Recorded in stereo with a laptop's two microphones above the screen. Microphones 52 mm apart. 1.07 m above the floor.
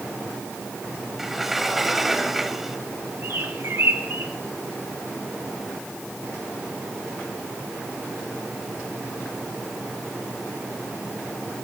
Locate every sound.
1.2 s a sliding door: 5° right (ahead or behind), 1.3 m
3.2 s a bird: 60° right (ahead or behind), 4 m